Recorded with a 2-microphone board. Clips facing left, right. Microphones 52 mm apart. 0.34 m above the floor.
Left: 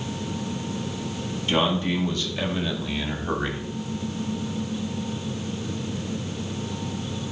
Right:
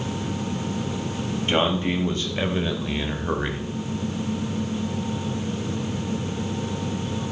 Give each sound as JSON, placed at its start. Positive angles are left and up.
{"t": 1.5, "sound": "a man speaking", "side_deg": -40, "distance_m": 2.5}